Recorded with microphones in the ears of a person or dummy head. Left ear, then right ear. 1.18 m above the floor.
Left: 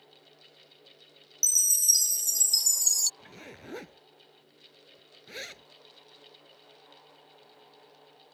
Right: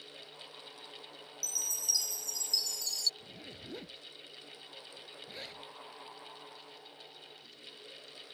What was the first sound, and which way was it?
A chime, 40° left (ahead or behind).